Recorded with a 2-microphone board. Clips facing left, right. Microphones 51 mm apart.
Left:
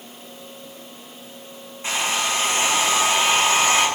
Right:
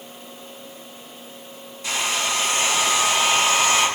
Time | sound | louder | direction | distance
1.8 | a hair dryer | left 1 dB | 30° left (ahead or behind) | 9 m